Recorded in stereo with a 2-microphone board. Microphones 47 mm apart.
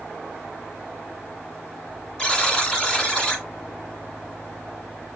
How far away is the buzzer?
About 1.6 m.